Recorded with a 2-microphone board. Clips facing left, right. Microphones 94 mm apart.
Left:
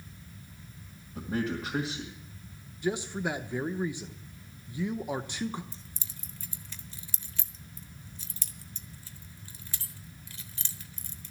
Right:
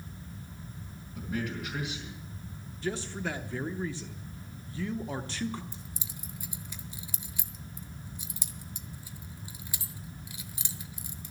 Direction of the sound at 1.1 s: 30° left (ahead or behind).